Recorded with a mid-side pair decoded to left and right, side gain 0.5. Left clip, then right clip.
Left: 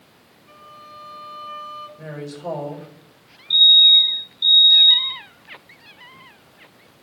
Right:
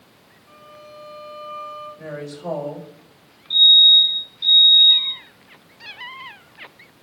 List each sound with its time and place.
0.5 s a violin: 5° left, 7 m
2.0 s a woman speaking: 5° left, 5 m
3.5 s a fire alarm: 35° left, 6 m